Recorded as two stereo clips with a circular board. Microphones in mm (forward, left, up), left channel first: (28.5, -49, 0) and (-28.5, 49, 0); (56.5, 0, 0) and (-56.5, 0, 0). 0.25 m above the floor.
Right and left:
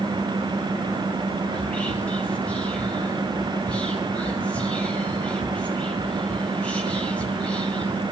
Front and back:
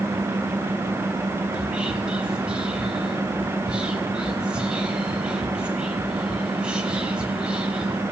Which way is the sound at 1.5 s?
115° right.